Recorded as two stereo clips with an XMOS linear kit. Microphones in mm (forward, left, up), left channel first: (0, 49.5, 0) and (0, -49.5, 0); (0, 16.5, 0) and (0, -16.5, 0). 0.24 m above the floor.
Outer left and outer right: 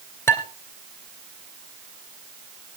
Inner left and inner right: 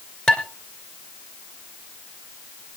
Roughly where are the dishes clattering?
Left.